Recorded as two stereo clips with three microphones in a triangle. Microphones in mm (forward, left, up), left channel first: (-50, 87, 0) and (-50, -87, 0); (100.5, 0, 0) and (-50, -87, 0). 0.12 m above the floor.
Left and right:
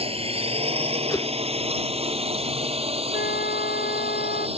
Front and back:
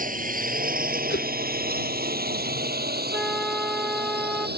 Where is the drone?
135° right; by 4.6 s 140° right.